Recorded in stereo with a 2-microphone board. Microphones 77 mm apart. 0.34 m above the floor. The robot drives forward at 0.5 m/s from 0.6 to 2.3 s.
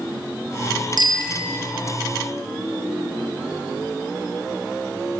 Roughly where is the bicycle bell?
Right.